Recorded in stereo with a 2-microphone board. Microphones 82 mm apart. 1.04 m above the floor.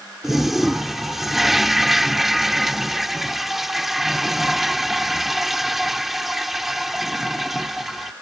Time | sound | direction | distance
0.2 | a toilet flushing | 5° right (ahead or behind) | ?